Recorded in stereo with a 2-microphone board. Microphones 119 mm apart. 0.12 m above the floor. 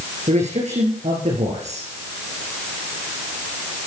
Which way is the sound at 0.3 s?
70° right (ahead or behind).